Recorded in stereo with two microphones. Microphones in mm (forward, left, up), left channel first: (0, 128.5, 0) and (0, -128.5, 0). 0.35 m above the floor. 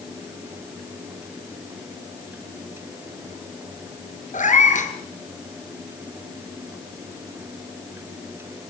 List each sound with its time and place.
4.3 s a cat meowing: 30° left (ahead or behind), 3.5 m